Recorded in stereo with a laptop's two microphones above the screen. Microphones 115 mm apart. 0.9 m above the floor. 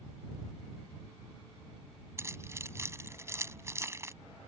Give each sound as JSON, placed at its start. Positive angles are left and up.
{"t": 2.2, "sound": "keys jangling", "side_deg": -25}